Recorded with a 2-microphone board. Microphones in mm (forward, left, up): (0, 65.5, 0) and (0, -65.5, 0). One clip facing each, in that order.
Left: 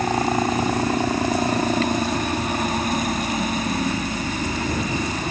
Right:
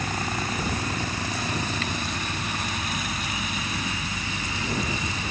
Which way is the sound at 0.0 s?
45° left (ahead or behind).